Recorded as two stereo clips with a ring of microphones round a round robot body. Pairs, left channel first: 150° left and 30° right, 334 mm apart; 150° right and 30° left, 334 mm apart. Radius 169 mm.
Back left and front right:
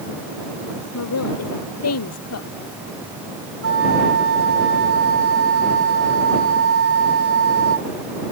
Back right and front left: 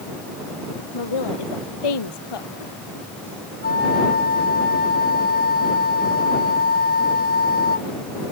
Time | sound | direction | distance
0.9 | a woman speaking | 165° right | ?
3.6 | a flute | 85° right | ?